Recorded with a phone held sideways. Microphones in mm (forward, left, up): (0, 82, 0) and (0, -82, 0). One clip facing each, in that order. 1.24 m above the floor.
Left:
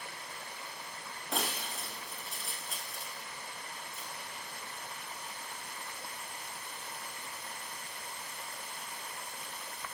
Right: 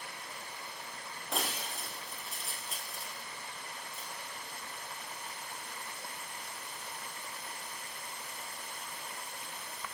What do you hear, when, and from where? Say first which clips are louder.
1.3 s breaking glass: left 1 dB; centre (ahead or behind), 4.5 m